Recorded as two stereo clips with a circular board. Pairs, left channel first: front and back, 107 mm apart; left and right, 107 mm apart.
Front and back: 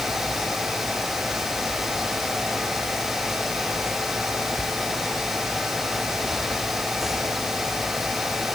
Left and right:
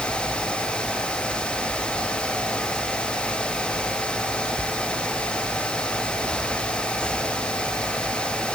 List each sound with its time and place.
Only background noise.